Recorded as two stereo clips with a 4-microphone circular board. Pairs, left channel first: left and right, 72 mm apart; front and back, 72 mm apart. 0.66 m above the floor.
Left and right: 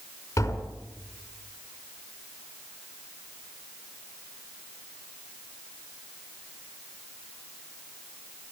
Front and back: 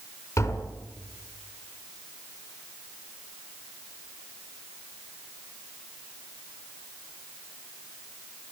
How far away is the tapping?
About 5.5 m.